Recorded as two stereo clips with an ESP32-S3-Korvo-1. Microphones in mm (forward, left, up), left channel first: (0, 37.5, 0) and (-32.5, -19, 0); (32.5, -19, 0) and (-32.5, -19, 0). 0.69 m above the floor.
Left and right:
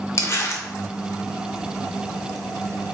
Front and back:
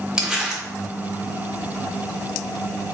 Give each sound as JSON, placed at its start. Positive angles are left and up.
{"t": 0.2, "sound": "crumpling", "azimuth_deg": 100, "distance_m": 1.5}